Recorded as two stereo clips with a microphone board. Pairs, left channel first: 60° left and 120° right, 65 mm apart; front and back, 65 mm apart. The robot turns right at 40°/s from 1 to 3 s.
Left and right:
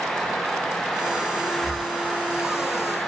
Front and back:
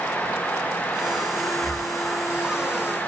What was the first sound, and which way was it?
Breathing, 165° right.